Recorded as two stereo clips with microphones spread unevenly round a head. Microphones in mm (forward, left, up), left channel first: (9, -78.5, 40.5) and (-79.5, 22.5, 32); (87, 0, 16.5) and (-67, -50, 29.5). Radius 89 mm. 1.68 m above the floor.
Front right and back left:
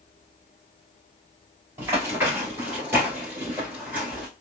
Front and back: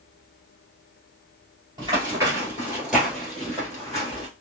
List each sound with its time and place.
1.8 s running footsteps: 170° right, 1.8 m; by 4.3 s 55° left, 1.7 m